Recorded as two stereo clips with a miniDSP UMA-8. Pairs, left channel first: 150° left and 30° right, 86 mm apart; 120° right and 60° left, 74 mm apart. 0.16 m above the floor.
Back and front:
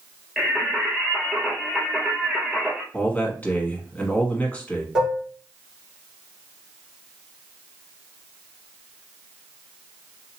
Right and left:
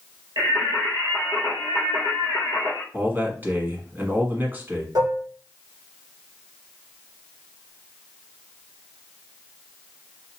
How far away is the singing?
About 1.7 m.